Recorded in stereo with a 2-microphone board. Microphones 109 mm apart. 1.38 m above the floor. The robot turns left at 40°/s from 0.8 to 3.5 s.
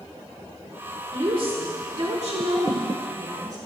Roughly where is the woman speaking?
Ahead right.